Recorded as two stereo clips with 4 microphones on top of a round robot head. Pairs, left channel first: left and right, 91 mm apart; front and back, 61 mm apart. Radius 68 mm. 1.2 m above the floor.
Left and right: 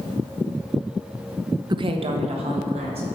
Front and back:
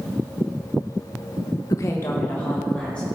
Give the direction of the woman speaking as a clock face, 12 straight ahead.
1 o'clock.